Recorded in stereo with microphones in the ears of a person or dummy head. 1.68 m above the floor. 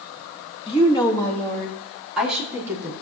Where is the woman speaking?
30° left (ahead or behind), 2 m; by 2.9 s 10° right (ahead or behind), 3.5 m.